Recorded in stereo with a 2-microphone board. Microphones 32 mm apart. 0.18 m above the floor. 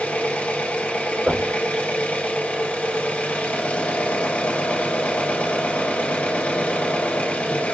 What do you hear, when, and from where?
0.0 s an engine running: 50° left (ahead or behind), 1.9 m
1.3 s knocking: 60° right (ahead or behind), 4 m